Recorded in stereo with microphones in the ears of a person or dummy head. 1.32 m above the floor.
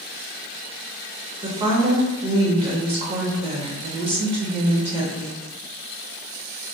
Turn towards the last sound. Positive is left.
turn(degrees=-30)  # may be behind; listen again after turning